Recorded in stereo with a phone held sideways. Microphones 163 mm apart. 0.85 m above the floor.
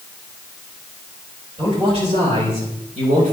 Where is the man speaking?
35° right (ahead or behind), 4.5 m; by 3.3 s 55° right (ahead or behind), 4 m.